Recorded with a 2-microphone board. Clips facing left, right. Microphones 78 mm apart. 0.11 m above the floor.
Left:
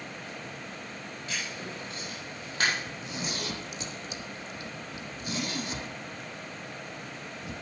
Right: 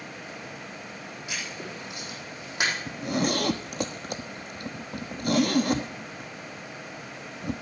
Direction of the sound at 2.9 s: 55° right (ahead or behind).